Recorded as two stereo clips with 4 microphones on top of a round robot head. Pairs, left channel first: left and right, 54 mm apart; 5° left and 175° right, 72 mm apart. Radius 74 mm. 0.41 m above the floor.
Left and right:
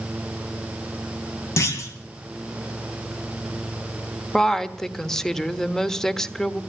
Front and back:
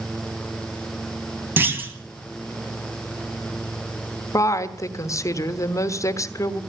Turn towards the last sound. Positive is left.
turn(degrees=10)